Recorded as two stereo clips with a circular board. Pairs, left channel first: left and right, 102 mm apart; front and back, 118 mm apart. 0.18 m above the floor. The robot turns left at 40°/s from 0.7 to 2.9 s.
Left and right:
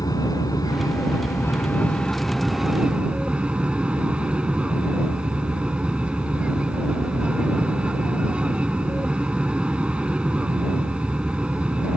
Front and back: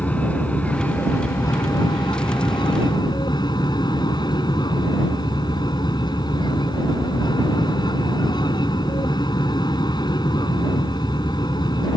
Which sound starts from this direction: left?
An aircraft, at 0.0 s.